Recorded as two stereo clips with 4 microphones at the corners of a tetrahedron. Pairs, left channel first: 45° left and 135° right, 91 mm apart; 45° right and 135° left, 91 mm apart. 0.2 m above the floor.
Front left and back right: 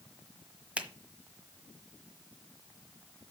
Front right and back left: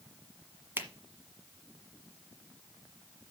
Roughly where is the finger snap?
Behind.